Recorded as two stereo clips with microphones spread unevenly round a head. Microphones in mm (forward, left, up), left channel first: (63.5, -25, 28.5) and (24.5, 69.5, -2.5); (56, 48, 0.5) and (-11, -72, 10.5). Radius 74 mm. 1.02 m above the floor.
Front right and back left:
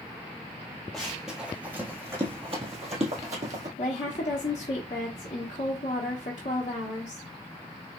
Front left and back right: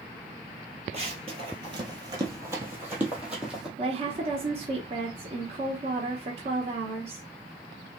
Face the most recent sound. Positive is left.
turn(degrees=-85)